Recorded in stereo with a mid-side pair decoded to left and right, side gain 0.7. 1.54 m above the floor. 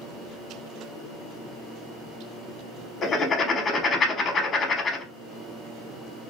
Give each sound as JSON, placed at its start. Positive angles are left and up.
{"t": 3.0, "sound": "writing", "azimuth_deg": 35, "distance_m": 0.7}